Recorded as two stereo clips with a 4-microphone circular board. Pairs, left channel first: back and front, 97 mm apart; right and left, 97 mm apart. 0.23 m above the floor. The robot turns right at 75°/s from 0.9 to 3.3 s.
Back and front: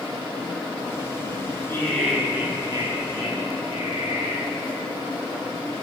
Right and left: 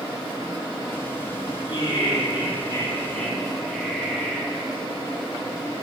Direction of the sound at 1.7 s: 120° right.